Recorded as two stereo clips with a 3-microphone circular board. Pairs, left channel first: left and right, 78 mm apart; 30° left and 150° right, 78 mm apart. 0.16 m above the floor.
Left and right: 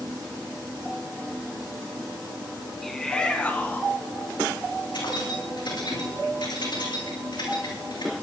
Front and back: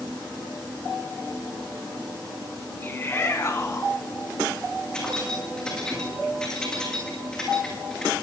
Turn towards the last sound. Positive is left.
turn(degrees=110)